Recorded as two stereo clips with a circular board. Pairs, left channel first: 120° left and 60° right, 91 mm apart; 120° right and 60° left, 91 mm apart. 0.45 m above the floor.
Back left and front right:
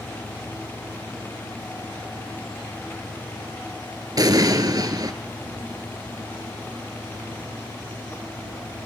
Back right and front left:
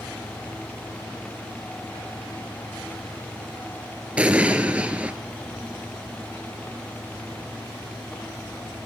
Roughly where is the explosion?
Ahead.